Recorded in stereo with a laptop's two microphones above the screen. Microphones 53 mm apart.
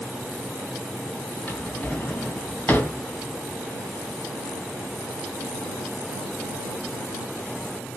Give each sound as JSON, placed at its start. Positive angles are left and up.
{"t": 1.5, "sound": "a drawer", "side_deg": 30, "distance_m": 3.0}